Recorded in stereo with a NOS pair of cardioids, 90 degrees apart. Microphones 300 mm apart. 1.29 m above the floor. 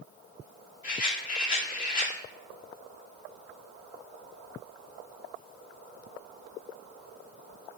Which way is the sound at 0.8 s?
30° left.